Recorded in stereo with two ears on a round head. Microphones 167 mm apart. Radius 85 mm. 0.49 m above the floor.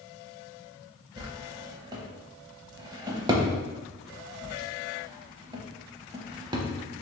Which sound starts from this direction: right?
A drawer, at 1.2 s.